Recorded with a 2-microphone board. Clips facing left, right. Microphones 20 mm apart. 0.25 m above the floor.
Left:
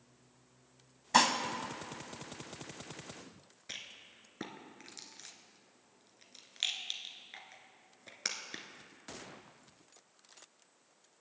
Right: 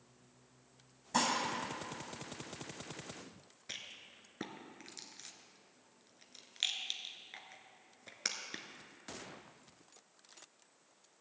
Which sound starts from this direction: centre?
A rattle, at 3.7 s.